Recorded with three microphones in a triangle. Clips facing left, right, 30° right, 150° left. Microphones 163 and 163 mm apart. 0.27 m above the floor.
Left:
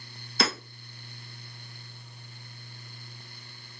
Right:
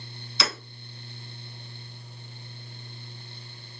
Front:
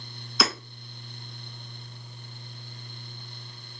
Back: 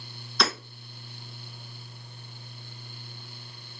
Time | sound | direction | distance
0.4 | hammering | 55° left | 0.9 m